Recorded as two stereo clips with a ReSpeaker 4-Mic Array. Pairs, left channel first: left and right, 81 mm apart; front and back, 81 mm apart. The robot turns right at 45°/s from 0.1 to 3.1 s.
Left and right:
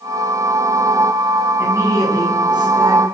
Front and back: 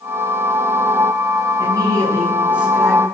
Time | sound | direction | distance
1.6 | a woman speaking | 150° right | 7.5 m